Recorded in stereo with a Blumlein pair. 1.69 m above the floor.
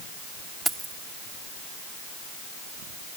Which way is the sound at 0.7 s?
10° right.